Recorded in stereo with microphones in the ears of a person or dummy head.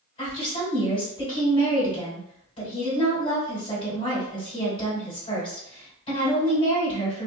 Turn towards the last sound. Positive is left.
turn(degrees=35)  # may be behind; listen again after turning